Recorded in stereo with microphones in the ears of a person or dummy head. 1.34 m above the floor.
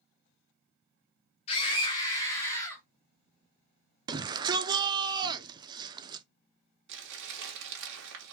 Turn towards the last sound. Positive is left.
turn(degrees=-65)  # may be behind; listen again after turning